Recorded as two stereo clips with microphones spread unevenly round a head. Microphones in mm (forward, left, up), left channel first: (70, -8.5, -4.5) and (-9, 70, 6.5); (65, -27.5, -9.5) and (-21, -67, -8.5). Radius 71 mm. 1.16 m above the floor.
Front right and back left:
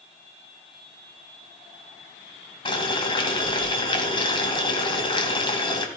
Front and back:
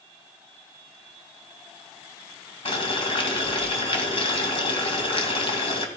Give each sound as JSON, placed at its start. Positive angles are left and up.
{"t": 2.6, "sound": "boiling", "azimuth_deg": 5, "distance_m": 2.0}